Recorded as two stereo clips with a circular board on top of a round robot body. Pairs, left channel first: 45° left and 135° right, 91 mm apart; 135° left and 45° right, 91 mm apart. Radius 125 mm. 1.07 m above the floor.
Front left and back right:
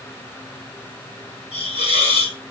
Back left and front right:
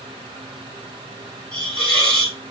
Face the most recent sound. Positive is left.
turn(degrees=55)